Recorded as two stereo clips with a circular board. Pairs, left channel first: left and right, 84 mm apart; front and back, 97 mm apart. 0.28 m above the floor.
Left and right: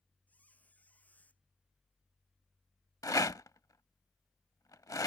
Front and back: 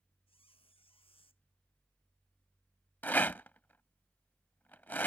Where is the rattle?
65° left.